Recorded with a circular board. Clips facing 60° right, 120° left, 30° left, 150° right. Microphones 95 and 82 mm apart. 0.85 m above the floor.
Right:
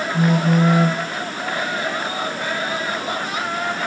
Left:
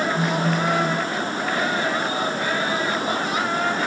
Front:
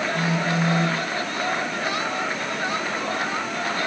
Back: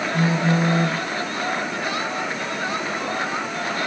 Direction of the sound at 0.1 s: 100° right.